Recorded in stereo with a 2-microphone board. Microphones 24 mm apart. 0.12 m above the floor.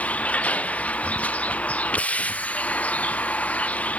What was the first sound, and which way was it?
A vehicle, 90° left.